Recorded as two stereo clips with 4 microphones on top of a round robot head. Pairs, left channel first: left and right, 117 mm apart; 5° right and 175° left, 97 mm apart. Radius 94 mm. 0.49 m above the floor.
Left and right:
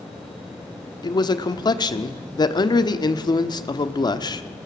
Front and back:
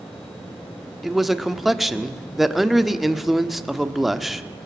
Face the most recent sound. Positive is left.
turn(degrees=90)